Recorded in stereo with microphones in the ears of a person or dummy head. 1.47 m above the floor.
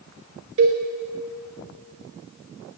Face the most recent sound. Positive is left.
turn(degrees=-30)  # may be behind; listen again after turning